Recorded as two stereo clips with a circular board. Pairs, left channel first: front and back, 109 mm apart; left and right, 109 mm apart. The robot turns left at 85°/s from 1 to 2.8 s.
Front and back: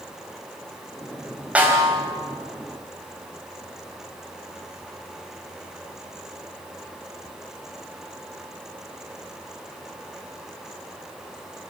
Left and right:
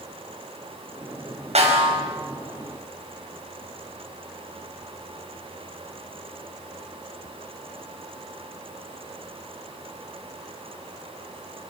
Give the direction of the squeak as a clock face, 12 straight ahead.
No squeak in this recording.